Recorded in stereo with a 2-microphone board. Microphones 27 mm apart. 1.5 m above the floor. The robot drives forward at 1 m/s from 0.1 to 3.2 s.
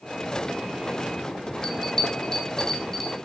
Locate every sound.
1.6 s a bell: 30° left (ahead or behind), 1.6 m; by 3.1 s 15° left (ahead or behind), 2.5 m